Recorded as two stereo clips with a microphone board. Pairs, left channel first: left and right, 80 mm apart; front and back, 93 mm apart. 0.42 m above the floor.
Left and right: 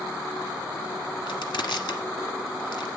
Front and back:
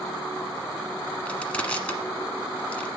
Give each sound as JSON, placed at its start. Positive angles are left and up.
{"t": 1.3, "sound": "crushing", "azimuth_deg": 75, "distance_m": 1.3}